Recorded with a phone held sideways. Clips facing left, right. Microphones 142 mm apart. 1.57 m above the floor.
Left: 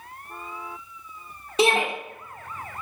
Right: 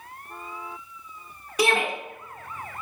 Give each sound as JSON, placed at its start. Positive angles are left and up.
{"t": 1.6, "sound": "a shout", "side_deg": 25, "distance_m": 0.8}